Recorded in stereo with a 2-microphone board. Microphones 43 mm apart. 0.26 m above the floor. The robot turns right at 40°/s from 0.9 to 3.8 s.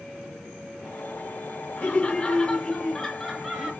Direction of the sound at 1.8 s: 115° left.